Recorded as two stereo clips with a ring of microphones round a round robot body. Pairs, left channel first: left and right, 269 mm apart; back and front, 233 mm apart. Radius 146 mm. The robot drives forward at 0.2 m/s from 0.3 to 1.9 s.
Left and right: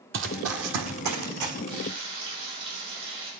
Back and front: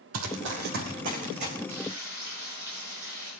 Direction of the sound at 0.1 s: 40° right.